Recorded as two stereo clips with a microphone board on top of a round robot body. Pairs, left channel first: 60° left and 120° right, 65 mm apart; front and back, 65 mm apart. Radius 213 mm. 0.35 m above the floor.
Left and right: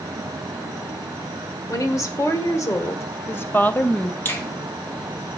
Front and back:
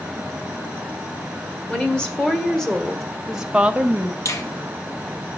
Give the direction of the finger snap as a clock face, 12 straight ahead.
12 o'clock.